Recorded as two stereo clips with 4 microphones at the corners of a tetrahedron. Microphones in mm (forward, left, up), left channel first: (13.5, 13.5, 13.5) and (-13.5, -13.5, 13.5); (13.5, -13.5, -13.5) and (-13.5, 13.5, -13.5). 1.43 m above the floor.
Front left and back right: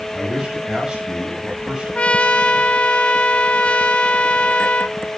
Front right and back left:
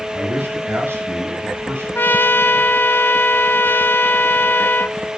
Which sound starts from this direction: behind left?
A man speaking, at 0.1 s.